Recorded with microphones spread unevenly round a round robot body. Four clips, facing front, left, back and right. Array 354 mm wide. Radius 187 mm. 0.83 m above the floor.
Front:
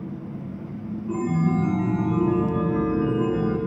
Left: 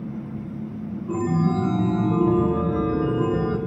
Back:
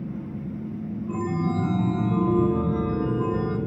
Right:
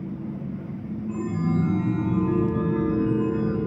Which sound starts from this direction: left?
A chime, at 1.1 s.